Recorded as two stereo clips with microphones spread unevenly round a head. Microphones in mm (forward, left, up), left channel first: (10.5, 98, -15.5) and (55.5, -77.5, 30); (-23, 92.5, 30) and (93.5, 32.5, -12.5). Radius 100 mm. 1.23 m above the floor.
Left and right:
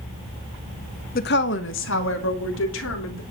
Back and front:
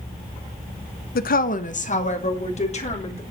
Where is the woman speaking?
145° left, 0.8 m; by 3.2 s 115° left, 3.5 m.